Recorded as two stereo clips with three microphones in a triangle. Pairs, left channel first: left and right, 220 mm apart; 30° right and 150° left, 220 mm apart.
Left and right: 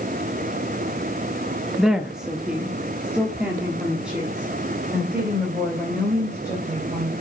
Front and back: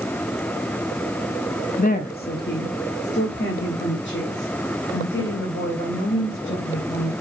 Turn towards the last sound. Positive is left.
turn(degrees=-5)